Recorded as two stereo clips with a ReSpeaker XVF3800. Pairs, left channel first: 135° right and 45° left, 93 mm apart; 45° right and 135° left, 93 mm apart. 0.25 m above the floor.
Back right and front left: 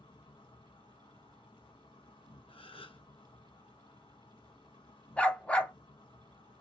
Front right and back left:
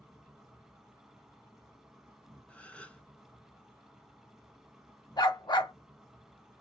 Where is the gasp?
120° right, 0.6 m.